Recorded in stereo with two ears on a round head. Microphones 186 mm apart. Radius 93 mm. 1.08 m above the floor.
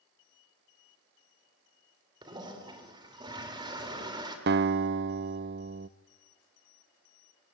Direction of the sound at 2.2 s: 20° right (ahead or behind).